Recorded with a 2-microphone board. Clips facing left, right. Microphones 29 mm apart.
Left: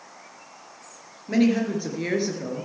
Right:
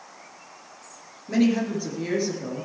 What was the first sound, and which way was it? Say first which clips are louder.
A woman speaking: left 1 dB; 15° left (ahead or behind).